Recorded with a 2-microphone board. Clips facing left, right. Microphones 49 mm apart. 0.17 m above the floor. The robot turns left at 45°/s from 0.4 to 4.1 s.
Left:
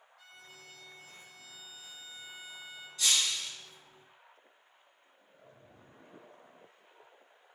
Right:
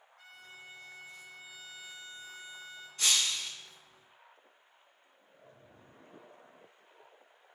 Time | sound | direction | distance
0.2 | a violin | 45° right | 0.7 m
3.0 | breaking glass | 40° right (ahead or behind) | 0.6 m